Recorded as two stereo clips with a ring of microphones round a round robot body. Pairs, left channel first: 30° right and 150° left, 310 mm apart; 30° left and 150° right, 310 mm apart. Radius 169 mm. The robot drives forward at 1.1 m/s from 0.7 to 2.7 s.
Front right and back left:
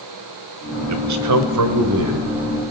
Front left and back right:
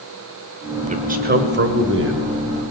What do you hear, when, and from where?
0.9 s a man speaking: 145° left, 1.9 m; by 2.3 s 165° left, 3 m